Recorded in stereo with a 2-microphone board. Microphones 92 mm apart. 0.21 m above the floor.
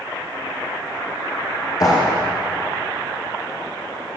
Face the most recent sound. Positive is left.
turn(degrees=40)  # may be behind; listen again after turning